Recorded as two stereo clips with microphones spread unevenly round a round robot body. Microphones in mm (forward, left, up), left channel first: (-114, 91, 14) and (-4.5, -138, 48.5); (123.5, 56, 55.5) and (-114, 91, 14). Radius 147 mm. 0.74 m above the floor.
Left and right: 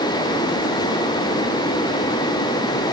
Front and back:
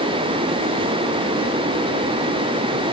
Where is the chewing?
I don't hear chewing.